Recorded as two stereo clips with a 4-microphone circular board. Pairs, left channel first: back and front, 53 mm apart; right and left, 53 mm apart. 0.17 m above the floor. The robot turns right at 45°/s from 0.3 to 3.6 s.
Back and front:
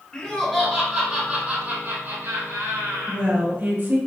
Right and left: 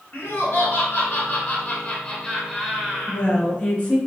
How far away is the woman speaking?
About 1.8 m.